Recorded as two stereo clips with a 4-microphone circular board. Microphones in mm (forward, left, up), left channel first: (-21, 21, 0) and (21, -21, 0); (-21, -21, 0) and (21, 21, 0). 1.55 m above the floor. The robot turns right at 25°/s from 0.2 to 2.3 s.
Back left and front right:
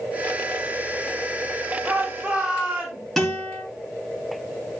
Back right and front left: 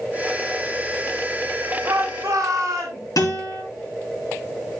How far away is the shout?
About 2.5 m.